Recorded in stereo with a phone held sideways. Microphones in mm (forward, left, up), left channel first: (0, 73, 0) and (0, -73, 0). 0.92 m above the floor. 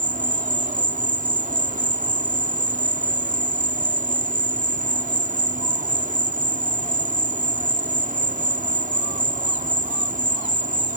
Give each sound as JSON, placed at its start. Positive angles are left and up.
{"t": 0.0, "sound": "an insect", "side_deg": -65}